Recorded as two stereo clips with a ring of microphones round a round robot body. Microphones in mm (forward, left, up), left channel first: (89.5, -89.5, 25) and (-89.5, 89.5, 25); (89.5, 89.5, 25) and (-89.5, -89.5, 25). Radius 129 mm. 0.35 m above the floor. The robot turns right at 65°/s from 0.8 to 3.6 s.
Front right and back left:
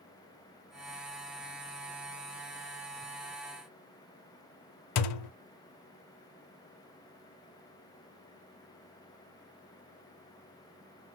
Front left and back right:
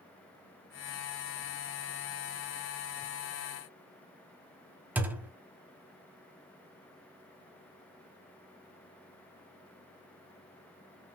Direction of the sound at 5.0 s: 50° right.